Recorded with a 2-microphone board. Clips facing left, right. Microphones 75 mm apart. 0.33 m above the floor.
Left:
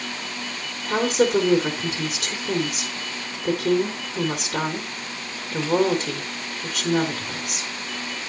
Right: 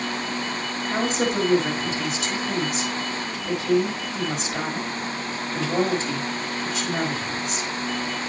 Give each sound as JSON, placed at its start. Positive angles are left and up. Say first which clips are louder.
{"t": 0.9, "sound": "a woman speaking", "louder": "left 5 dB", "side_deg": 60, "distance_m": 3.5}